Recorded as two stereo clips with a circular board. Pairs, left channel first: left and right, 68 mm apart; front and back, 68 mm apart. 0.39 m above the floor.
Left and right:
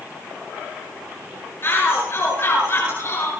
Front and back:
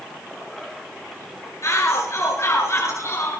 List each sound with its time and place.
1.6 s a shout: 40° left, 8.5 m; by 3.3 s 45° left, 7.5 m